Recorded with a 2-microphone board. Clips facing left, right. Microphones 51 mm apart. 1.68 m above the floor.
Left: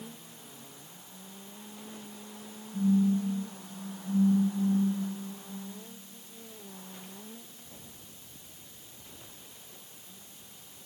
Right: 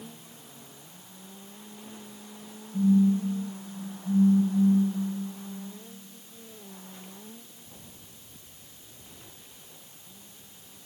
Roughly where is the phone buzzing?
Centre.